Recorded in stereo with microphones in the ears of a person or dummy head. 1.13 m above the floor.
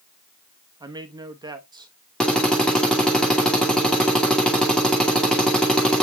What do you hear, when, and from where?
0.8 s a man speaking: 25° right (ahead or behind), 0.9 m
2.2 s a drill: centre (ahead or behind), 2.5 m